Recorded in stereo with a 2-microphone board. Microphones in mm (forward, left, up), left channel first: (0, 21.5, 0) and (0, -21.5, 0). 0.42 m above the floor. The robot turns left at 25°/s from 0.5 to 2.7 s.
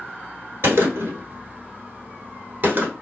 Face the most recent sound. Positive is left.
turn(degrees=-40)  # may be behind; listen again after turning